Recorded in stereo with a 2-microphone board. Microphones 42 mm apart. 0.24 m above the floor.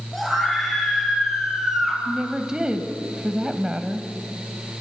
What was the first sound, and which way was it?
A scream, centre (ahead or behind).